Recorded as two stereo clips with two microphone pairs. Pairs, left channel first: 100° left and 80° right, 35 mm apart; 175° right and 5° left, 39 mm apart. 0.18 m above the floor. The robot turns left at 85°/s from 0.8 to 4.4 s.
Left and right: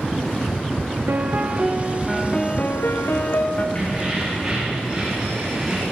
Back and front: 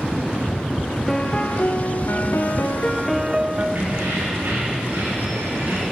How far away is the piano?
About 2.5 m.